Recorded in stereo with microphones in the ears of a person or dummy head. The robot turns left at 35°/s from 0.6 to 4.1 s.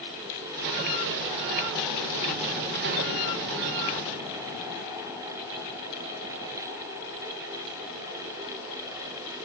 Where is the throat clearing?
I don't hear throat clearing.